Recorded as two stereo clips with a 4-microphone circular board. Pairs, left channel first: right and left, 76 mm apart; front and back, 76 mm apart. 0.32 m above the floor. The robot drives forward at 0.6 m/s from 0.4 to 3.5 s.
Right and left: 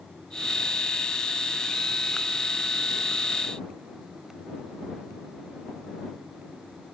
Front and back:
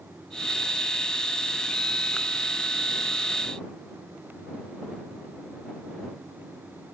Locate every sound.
Only background noise.